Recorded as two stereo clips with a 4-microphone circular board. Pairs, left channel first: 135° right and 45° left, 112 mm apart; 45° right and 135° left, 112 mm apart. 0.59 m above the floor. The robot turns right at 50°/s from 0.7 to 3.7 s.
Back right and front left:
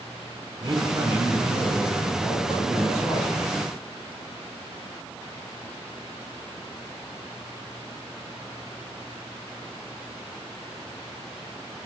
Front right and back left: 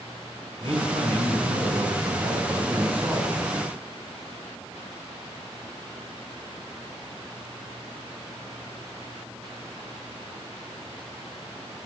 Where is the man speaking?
95° left, 7 m; by 3.5 s 130° right, 7 m.